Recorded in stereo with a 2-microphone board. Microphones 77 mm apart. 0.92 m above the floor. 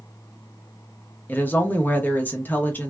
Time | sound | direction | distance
1.3 | a woman speaking | 25° left (ahead or behind) | 0.7 m